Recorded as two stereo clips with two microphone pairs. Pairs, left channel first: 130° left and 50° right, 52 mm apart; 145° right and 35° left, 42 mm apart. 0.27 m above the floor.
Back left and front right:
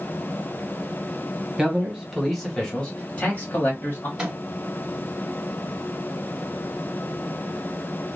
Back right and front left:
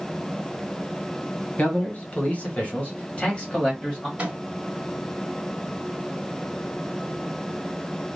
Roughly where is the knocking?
I don't hear knocking.